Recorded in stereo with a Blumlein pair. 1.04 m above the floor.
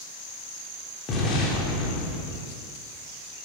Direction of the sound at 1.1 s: 25° left.